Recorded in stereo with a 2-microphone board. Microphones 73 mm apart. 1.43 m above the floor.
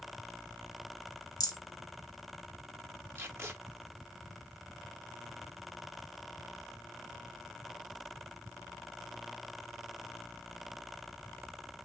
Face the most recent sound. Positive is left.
turn(degrees=-30)  # may be behind; listen again after turning